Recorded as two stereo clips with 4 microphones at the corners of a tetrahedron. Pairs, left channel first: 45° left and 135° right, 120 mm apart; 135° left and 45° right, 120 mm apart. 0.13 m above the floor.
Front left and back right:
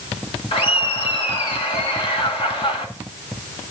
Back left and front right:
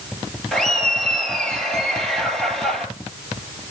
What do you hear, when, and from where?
0.5 s laughter: 50° left, 2 m